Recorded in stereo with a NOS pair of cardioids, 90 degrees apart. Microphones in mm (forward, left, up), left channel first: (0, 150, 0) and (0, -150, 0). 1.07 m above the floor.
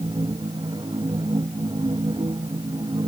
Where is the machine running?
15° right.